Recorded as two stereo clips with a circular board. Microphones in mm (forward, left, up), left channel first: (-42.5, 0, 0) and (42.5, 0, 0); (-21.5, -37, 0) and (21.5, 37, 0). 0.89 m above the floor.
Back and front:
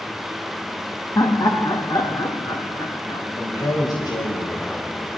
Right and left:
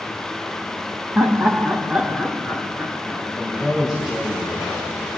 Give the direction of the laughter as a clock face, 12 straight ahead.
8 o'clock.